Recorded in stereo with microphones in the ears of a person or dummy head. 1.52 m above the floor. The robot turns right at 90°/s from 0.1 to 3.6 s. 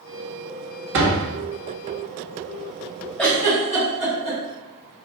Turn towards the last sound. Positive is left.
turn(degrees=25)  # may be behind; listen again after turning